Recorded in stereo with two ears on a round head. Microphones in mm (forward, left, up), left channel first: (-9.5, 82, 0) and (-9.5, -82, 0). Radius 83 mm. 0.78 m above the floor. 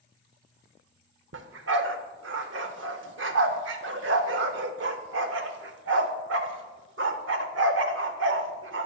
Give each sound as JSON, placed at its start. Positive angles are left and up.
{"t": 1.3, "sound": "a dog barking", "side_deg": -70, "distance_m": 0.8}